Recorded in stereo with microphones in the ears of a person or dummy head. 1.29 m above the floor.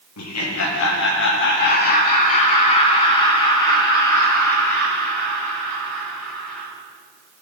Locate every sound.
0.2 s laughter: 85° left, 1.7 m; by 6.7 s 10° left (ahead or behind), 4.5 m